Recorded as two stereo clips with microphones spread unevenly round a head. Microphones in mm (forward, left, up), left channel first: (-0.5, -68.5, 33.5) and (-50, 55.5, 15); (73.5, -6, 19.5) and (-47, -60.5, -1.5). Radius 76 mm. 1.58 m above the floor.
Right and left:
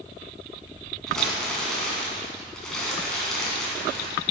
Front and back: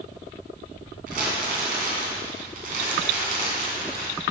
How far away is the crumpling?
About 2.5 m.